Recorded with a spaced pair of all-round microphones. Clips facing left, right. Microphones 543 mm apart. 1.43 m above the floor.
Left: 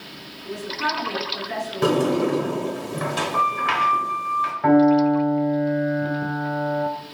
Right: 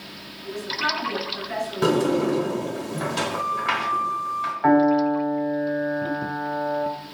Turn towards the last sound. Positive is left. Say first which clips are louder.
# left 3 dB
turn(degrees=50)  # may be behind; listen again after turning